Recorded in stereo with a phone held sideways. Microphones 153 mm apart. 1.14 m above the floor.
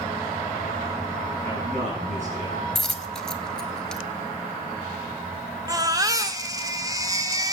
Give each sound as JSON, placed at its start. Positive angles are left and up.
{"t": 1.4, "sound": "a man speaking", "side_deg": -55, "distance_m": 8.5}
{"t": 2.8, "sound": "a dropped coin", "side_deg": 5, "distance_m": 1.2}
{"t": 5.7, "sound": "a baby crying", "side_deg": -25, "distance_m": 1.0}